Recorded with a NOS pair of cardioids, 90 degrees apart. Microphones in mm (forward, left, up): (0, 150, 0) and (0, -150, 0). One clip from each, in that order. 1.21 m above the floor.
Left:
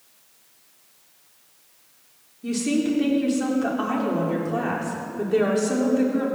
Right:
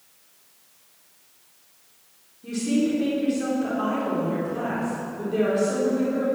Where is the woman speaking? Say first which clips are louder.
Left 1 dB; 50° left, 4 m.